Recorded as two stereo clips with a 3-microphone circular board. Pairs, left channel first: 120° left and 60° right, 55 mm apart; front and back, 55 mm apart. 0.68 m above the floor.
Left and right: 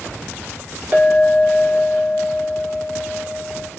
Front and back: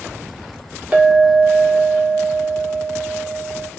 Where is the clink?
115° right, 0.8 m.